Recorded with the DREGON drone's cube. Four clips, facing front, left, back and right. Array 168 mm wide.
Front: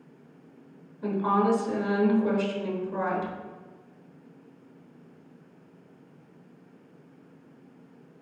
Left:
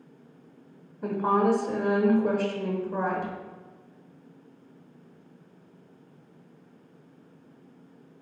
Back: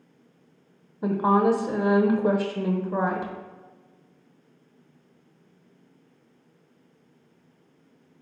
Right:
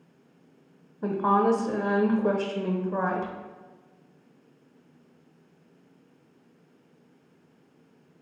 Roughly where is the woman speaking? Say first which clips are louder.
Right 1 dB, back 4 dB; behind.